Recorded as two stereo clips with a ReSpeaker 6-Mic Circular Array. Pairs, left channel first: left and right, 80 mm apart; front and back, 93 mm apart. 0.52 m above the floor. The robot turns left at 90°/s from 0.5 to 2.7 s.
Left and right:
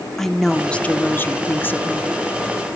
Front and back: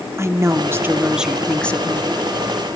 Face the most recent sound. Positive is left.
turn(degrees=-30)